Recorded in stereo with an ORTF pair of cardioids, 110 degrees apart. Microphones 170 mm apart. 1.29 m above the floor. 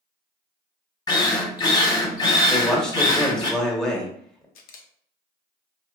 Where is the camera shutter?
65° left, 0.5 m.